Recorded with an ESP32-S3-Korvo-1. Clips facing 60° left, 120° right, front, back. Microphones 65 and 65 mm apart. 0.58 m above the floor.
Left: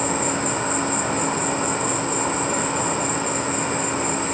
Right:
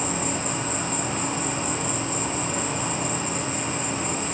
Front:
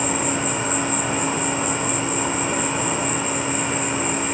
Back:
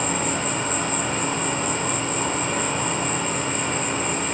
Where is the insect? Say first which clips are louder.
Left 5 dB, front 2 dB; 80° left, 1.1 m.